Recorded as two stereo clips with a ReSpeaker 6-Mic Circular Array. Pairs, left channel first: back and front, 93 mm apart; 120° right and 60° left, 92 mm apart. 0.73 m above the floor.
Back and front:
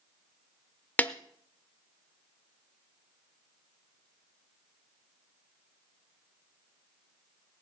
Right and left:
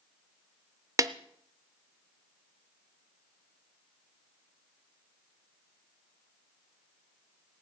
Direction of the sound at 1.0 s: 110° left.